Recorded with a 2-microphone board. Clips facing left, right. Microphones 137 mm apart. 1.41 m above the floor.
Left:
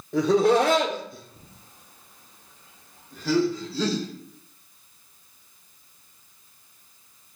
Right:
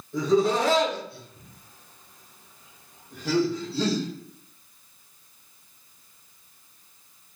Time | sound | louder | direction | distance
0.1 | laughter | left 3 dB | 75° left (ahead or behind) | 0.9 m